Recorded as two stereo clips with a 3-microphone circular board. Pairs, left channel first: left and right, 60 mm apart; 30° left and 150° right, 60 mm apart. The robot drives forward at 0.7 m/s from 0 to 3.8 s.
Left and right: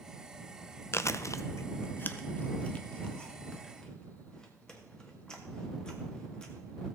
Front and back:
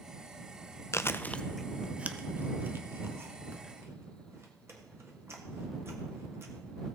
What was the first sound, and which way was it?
Chewing, 55° left.